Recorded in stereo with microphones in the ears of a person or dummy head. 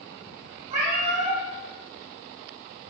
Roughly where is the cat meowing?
Right.